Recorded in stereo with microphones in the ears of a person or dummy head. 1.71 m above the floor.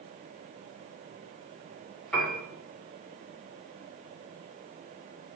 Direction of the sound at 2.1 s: 5° left (ahead or behind).